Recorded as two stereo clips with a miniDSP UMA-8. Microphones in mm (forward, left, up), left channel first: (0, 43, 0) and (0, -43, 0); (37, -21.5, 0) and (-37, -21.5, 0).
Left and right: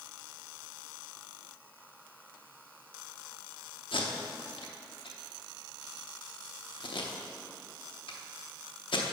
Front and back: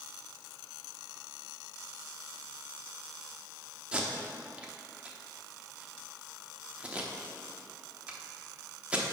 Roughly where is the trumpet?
I don't hear a trumpet.